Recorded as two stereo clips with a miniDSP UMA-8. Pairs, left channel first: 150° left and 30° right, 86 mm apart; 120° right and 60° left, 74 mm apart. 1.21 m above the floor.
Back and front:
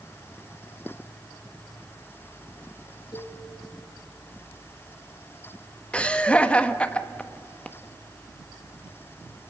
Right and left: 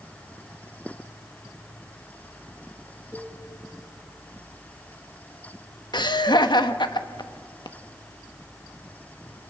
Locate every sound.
3.1 s a cowbell: 175° right, 8 m
5.9 s laughter: 135° right, 1.3 m